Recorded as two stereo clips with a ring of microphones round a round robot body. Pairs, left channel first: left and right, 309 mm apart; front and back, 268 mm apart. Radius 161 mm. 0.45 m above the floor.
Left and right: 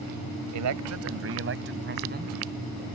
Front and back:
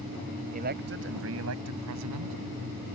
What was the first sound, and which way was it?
A man speaking, 115° right.